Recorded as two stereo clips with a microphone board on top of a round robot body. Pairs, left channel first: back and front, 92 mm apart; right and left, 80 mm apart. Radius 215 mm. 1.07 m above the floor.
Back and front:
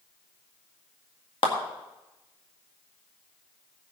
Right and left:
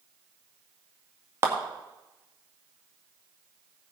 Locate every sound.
1.4 s a clap: 150° left, 1.9 m